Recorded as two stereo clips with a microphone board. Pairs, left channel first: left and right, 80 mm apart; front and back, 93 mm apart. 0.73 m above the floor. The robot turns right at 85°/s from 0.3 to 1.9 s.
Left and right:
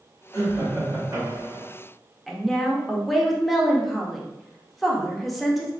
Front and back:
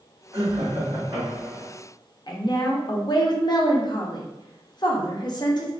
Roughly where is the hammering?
I don't hear hammering.